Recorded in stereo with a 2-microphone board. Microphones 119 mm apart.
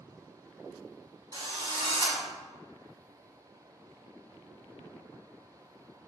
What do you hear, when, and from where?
1.3 s a drill: 40° right (ahead or behind), 1.4 m